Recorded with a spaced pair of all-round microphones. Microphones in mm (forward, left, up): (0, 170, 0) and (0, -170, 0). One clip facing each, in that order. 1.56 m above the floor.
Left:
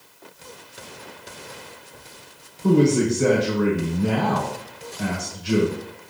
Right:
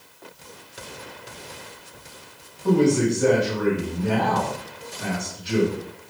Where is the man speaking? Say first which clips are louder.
Left 1 dB; 75° left (ahead or behind), 1.6 m.